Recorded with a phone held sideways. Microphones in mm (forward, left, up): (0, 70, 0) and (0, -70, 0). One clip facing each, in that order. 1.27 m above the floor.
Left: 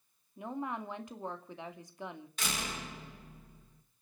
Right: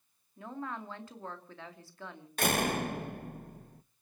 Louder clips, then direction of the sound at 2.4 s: Right 11 dB; 55° right (ahead or behind).